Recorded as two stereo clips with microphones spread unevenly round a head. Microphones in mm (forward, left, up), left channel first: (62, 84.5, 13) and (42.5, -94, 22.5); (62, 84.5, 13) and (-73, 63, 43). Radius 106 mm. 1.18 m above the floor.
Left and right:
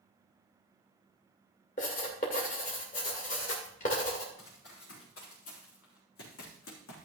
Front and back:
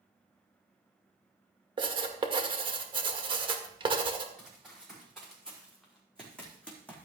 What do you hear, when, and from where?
1.8 s writing: 140° left, 1.8 m
4.4 s running footsteps: 100° left, 7 m; by 7.0 s 95° left, 3.5 m